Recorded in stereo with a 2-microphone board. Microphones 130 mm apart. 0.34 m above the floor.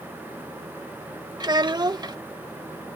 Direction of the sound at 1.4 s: 35° right (ahead or behind).